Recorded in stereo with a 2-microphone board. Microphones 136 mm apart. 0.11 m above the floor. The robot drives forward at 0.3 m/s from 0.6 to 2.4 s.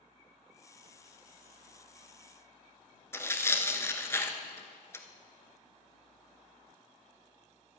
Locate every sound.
3.1 s tearing paper: 20° left (ahead or behind), 1.0 m